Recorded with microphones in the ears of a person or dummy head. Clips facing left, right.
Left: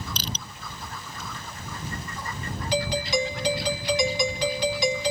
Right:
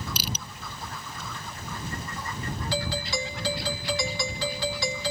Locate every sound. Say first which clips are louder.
0.2 s crushing: even; 10° right (ahead or behind)
2.7 s a doorbell: left 7 dB; 15° left (ahead or behind)